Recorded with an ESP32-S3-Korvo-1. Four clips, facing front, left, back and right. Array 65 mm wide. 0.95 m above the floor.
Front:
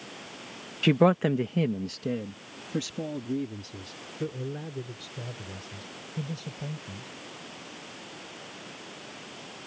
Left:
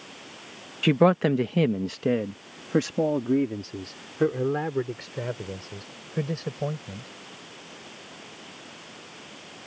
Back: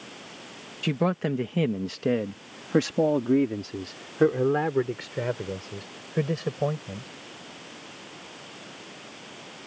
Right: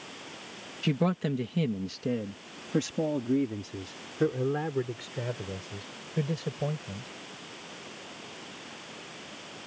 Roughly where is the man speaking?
Ahead left.